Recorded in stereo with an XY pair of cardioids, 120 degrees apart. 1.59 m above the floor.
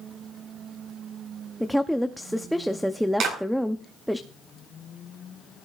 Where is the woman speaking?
Straight ahead, 0.7 m.